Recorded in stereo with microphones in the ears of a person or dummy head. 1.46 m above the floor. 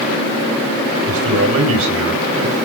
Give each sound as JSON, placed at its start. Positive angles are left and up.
{"t": 1.1, "sound": "a man speaking", "side_deg": -90, "distance_m": 8.0}